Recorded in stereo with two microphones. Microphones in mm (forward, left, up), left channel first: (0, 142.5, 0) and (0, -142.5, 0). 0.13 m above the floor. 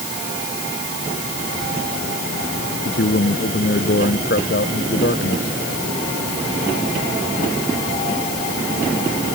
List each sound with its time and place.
2.9 s a man speaking: 40° left (ahead or behind)